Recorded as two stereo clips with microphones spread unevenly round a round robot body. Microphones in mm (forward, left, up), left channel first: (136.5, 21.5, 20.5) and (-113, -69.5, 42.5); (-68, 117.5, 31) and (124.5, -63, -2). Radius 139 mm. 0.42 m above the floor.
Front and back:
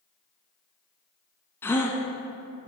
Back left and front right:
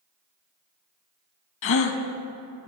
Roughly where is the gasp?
Left.